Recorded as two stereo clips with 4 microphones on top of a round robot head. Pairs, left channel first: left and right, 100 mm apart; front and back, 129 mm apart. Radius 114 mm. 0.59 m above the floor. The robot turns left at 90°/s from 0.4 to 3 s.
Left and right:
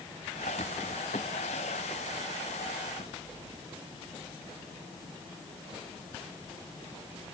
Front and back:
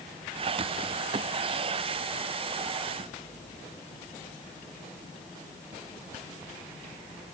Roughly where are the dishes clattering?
No dishes clattering in this recording.